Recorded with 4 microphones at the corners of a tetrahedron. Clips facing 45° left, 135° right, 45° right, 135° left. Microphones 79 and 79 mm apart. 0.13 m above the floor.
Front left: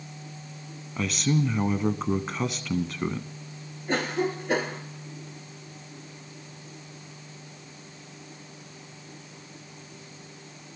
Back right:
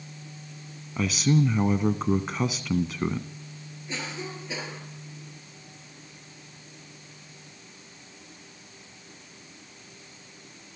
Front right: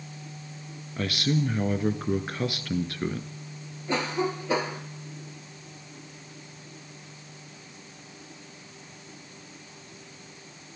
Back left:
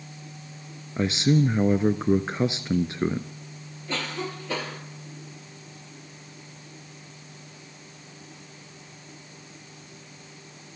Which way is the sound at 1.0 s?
140° left.